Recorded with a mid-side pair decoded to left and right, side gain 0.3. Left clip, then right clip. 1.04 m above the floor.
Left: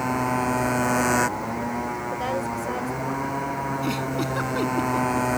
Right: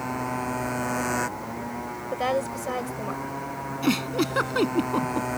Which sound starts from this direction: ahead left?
A motorcycle, at 0.0 s.